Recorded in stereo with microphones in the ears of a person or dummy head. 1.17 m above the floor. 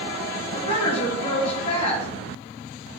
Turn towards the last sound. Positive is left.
turn(degrees=35)  # may be behind; listen again after turning